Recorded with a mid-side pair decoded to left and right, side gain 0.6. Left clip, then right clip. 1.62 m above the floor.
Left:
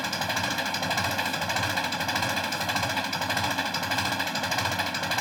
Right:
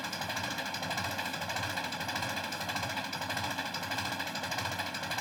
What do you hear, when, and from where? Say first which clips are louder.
0.0 s an engine running: left 8 dB; 40° left